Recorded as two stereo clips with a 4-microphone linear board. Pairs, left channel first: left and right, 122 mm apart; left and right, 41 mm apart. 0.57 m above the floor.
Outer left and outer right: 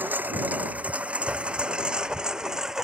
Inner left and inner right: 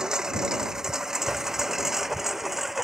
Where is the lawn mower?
15° right (ahead or behind); by 2.9 s 5° right (ahead or behind).